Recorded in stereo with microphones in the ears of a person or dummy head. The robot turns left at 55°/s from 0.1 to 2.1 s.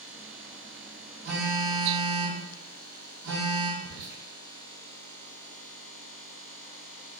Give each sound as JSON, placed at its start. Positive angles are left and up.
{"t": 1.2, "sound": "a phone buzzing", "azimuth_deg": -40, "distance_m": 1.2}
{"t": 3.8, "sound": "whispering", "side_deg": -50, "distance_m": 1.0}